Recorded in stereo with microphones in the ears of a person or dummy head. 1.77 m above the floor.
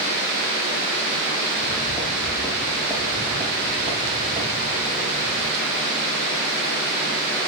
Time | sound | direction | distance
1.6 | footsteps | 20° left (ahead or behind) | 1.8 m